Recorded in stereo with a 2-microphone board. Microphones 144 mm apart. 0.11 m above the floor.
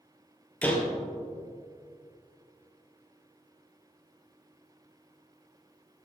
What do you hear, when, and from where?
0.6 s a door slam: 10° left (ahead or behind), 2 m